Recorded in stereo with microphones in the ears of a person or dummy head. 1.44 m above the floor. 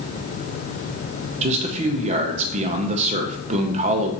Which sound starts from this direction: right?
A man speaking, at 1.4 s.